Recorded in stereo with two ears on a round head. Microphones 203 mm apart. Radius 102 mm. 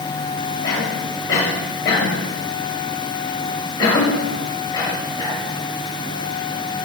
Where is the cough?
15° left (ahead or behind), 7.5 m.